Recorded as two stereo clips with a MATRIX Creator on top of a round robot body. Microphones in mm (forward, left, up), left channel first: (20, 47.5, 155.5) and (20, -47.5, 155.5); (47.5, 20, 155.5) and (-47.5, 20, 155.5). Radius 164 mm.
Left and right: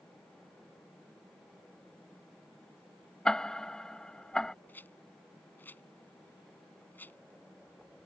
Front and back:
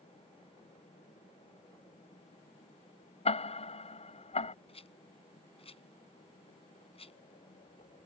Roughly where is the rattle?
Ahead.